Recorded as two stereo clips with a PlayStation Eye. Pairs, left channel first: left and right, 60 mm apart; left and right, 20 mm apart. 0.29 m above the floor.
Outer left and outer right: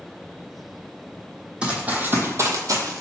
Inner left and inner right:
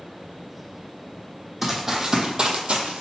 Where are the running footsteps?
15° right (ahead or behind), 0.8 m; by 3.0 s 75° right (ahead or behind), 0.7 m.